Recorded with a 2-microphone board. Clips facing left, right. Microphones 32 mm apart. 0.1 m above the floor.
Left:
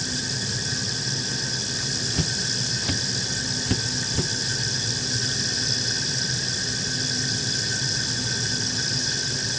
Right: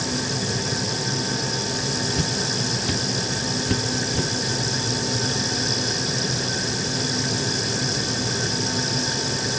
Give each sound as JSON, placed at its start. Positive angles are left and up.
{"t": 2.1, "sound": "footsteps", "side_deg": 5}